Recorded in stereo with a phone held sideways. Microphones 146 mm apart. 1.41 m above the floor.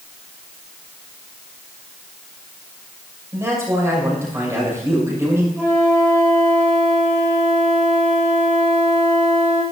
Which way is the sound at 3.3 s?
20° right (ahead or behind).